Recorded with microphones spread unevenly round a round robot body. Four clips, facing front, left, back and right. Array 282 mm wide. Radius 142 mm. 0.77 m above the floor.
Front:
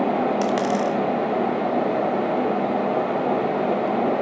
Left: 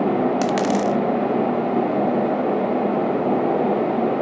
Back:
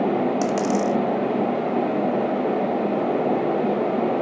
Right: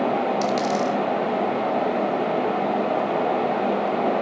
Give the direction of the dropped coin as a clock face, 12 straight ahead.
7 o'clock.